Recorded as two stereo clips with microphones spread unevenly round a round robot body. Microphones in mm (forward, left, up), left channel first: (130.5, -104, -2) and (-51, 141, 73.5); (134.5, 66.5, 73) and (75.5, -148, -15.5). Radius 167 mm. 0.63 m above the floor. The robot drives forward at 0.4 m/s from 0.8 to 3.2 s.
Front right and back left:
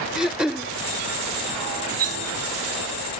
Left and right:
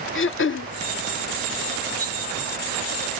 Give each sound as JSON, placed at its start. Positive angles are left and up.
{"t": 0.1, "sound": "throat clearing", "azimuth_deg": 30}
{"t": 2.0, "sound": "cutlery clinking", "azimuth_deg": 175}